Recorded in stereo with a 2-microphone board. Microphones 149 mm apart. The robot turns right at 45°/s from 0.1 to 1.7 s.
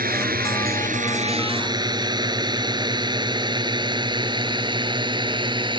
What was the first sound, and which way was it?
A drone, 75° right (ahead or behind).